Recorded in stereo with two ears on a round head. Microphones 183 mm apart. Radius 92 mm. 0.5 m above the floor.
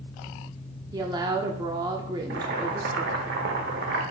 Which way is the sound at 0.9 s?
20° right (ahead or behind).